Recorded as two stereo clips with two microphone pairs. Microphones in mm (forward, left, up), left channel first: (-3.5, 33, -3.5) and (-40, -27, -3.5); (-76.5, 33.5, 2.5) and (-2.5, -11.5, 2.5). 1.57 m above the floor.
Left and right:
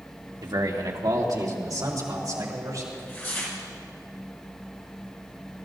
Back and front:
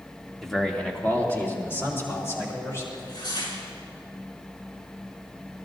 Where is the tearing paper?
120° left, 5 m.